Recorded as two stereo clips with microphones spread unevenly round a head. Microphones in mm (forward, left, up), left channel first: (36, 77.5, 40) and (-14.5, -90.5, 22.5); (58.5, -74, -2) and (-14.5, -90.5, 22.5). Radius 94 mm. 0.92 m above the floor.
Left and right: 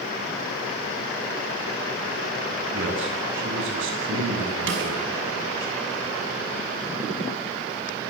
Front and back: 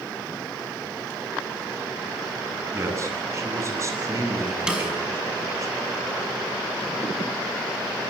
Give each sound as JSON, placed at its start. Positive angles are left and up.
{"t": 2.7, "sound": "a man speaking", "azimuth_deg": -120, "distance_m": 9.5}
{"t": 4.7, "sound": "a snare drum", "azimuth_deg": -90, "distance_m": 6.5}